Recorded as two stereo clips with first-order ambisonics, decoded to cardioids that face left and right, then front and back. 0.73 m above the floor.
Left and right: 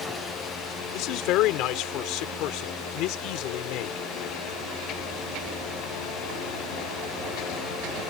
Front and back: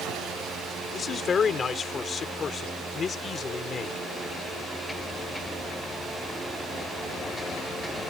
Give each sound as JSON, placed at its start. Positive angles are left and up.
{"t": 0.9, "sound": "a man speaking", "azimuth_deg": 70}